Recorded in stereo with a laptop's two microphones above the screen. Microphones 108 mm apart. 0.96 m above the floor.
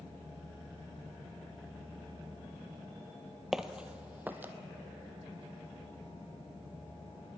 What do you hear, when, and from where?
3.5 s footsteps: 5° right (ahead or behind), 1.2 m; by 4.5 s 20° right (ahead or behind), 1.8 m